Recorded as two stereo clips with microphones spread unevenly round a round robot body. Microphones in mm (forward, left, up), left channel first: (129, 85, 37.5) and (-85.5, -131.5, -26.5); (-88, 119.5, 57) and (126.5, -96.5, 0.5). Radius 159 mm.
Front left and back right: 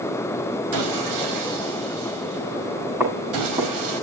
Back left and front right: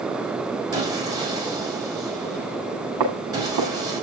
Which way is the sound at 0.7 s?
120° right.